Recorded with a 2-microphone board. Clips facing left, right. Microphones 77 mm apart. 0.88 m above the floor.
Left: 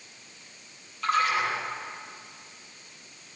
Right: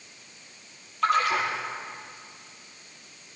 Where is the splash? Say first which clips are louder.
Right 2 dB; 75° right (ahead or behind), 8.5 m.